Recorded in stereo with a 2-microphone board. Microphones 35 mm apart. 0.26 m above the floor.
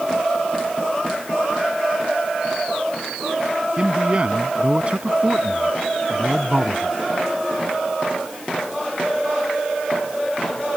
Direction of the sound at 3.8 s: 35° right (ahead or behind).